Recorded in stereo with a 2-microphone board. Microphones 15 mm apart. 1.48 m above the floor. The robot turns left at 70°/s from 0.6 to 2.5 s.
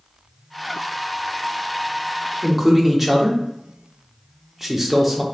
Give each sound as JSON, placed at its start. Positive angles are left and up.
{"t": 2.4, "sound": "a man speaking", "side_deg": -20, "distance_m": 0.9}